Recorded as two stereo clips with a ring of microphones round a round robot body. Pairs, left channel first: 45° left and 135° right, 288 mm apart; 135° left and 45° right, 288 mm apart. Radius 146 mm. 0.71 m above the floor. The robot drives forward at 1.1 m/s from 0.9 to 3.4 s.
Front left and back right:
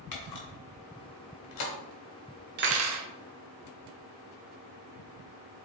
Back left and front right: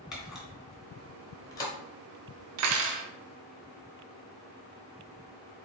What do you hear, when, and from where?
0.1 s a camera shutter: 45° left, 2.5 m; by 1.7 s 60° left, 2 m
2.6 s cutlery clinking: 80° right, 1.0 m; by 3.1 s 110° right, 1.0 m